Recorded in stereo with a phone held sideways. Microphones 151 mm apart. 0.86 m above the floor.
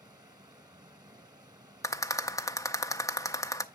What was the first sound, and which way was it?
Running water, 25° right (ahead or behind).